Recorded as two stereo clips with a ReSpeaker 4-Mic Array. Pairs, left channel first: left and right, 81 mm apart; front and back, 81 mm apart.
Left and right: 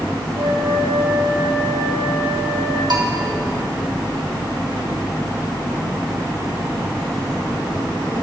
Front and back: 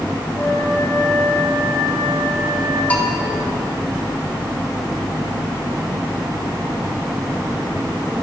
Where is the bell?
70° right, 1.6 m.